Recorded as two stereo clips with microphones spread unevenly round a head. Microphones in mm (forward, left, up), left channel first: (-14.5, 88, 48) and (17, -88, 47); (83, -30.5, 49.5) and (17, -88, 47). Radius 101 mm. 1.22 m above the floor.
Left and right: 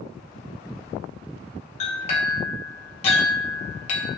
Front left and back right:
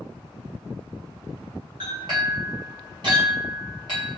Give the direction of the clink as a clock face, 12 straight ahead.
7 o'clock.